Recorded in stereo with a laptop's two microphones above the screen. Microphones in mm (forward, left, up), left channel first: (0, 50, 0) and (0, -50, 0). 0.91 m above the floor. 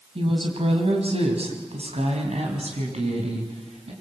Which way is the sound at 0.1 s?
65° right (ahead or behind).